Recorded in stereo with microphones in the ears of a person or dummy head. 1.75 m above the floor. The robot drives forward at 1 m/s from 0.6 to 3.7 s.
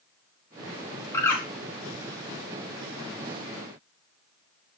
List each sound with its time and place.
1.1 s a bird: 15° left (ahead or behind), 4.5 m